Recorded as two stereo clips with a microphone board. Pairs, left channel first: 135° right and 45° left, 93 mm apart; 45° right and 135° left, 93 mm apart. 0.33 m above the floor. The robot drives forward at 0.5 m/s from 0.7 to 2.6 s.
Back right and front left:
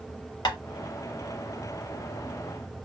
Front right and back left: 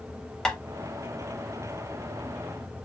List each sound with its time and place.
0.5 s tapping: 125° right, 0.5 m